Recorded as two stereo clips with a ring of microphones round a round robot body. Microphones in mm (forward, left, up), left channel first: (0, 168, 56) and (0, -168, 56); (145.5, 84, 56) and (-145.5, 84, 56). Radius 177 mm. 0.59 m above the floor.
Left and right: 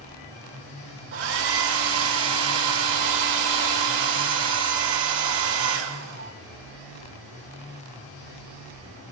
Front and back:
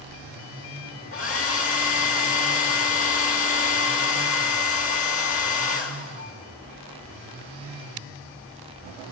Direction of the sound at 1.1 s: 40° right.